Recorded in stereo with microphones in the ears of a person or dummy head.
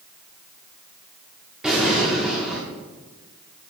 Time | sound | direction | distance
1.6 | an explosion | 5° right (ahead or behind) | 1.1 m